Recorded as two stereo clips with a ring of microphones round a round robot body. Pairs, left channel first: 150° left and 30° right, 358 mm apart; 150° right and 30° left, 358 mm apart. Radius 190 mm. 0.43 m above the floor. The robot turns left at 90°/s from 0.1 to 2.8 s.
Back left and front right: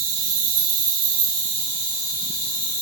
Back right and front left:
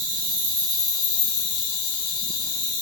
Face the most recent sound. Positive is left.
turn(degrees=125)